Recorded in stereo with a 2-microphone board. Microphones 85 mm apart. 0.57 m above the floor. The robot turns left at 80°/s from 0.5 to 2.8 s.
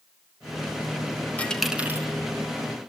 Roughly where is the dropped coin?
Centre.